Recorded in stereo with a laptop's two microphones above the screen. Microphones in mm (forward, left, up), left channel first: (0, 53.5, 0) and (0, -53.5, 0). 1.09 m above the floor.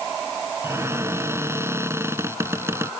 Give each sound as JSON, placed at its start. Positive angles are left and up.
{"t": 0.6, "sound": "a cupboard door", "side_deg": -25}